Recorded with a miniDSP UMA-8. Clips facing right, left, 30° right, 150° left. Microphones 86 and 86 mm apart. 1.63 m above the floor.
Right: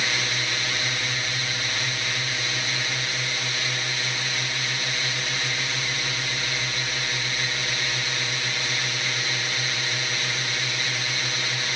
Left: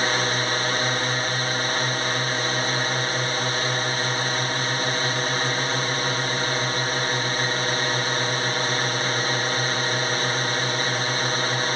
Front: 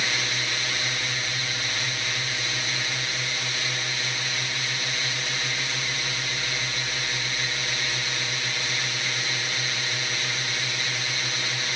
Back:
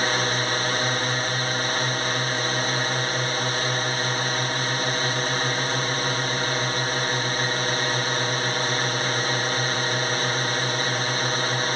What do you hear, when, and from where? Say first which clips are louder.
0.0 s a drone: left 5 dB, back 6 dB; 125° left